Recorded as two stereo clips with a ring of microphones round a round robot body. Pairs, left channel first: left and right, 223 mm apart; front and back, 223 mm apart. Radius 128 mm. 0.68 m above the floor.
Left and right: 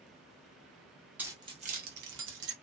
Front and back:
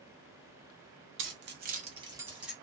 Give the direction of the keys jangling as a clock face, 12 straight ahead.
6 o'clock.